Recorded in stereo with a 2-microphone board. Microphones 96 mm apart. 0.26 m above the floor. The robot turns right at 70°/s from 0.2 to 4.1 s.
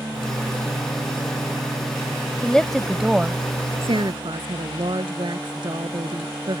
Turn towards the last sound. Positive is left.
turn(degrees=-55)  # may be behind; listen again after turning